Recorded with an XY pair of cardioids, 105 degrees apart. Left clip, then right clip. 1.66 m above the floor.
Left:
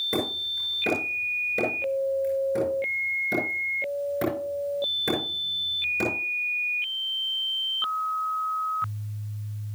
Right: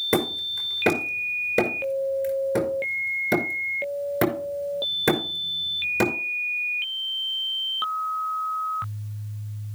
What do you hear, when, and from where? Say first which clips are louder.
0.1 s hammering: right 3 dB; 60° right, 6 m